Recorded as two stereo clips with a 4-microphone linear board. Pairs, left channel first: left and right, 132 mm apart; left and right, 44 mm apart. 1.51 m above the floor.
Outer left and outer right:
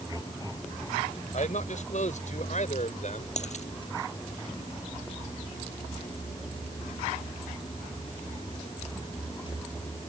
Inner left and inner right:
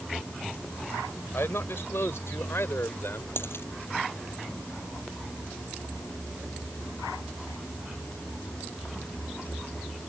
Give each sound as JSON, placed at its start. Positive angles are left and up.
{"t": 1.3, "sound": "a man speaking", "side_deg": 65}
{"t": 3.4, "sound": "a dropped coin", "side_deg": 60}